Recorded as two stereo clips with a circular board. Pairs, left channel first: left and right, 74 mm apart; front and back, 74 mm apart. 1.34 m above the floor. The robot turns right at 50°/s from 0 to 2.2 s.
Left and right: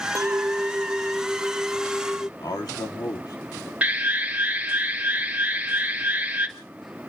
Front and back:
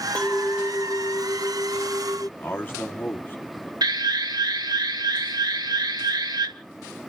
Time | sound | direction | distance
0.1 | a clink | 70° right | 0.7 m
2.4 | a man speaking | 65° left | 3 m
3.8 | an alarm | 160° right | 1.7 m